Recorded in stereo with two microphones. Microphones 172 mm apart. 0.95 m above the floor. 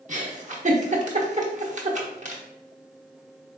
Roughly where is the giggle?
Right.